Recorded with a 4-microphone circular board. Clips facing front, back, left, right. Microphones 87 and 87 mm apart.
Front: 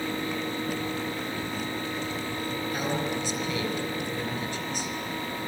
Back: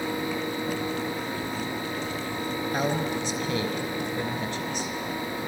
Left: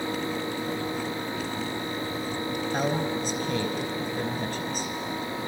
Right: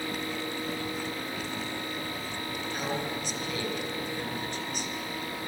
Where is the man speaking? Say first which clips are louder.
Back 3 dB, left 6 dB; 140° left, 4 m.